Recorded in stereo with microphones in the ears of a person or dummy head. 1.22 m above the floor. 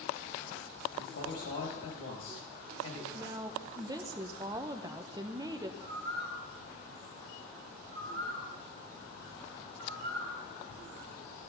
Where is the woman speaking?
25° right (ahead or behind), 0.6 m.